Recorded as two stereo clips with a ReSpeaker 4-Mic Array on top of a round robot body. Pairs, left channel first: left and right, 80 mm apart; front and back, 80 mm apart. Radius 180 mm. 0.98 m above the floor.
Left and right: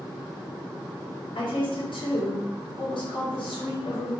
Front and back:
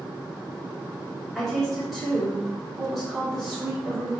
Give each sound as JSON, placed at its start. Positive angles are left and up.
{"t": 1.4, "sound": "a woman speaking", "azimuth_deg": 90, "distance_m": 4.0}